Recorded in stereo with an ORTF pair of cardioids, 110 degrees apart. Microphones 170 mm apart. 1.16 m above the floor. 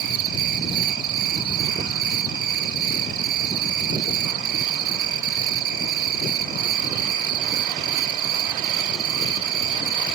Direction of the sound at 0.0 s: 65° right.